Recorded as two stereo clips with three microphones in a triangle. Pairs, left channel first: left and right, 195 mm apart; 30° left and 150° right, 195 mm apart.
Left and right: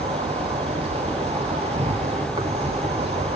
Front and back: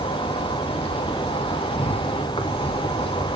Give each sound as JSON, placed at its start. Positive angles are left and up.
{"t": 0.0, "sound": "an insect", "azimuth_deg": -30, "distance_m": 1.9}